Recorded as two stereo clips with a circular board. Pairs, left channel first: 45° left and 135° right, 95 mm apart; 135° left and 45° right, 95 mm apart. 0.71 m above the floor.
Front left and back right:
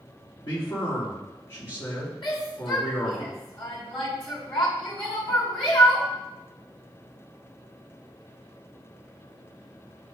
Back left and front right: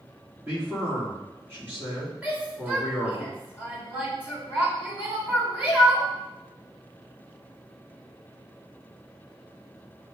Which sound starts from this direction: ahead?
A man speaking, at 0.4 s.